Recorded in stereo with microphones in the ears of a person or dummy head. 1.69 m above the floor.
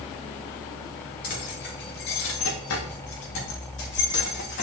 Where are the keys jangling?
45° left (ahead or behind), 2 m; by 4.6 s 55° left (ahead or behind), 3.5 m.